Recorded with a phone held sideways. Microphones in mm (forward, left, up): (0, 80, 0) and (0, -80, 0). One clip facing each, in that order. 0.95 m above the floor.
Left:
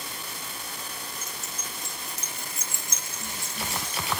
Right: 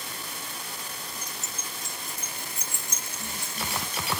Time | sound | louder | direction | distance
1.2 | keys jangling | even | 20° left (ahead or behind) | 1.0 m